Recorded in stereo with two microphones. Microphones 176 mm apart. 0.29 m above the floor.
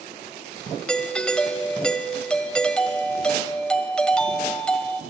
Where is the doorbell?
5° left (ahead or behind), 1.6 m.